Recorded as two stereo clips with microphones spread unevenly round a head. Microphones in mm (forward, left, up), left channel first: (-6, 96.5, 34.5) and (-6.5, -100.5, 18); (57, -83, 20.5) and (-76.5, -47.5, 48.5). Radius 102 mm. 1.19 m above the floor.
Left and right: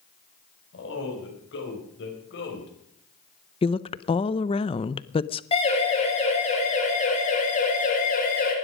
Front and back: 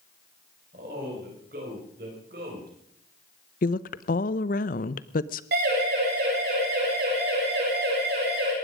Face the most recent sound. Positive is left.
turn(degrees=140)